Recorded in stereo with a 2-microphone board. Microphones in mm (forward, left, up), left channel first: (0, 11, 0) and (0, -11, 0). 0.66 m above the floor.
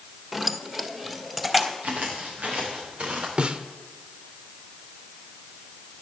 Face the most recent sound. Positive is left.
turn(degrees=-50)  # may be behind; listen again after turning